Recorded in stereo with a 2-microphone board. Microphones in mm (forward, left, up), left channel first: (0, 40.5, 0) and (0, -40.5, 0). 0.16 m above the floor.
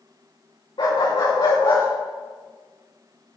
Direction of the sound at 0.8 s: 70° left (ahead or behind).